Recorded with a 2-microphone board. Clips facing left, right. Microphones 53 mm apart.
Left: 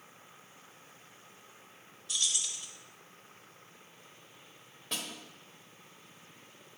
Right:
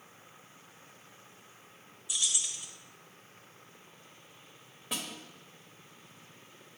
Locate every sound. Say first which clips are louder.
2.1 s keys jangling: even; 10° right (ahead or behind), 0.8 m
4.9 s a snare drum: right 1 dB; 10° right (ahead or behind), 1.1 m